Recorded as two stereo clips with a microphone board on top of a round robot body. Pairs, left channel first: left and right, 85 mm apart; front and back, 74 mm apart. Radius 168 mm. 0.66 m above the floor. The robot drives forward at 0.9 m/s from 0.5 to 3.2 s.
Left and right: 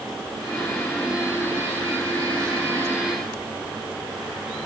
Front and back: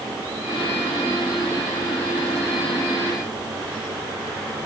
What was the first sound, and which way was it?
Only background noise.